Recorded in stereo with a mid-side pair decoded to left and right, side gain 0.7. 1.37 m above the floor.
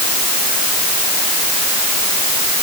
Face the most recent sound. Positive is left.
No sound to turn to.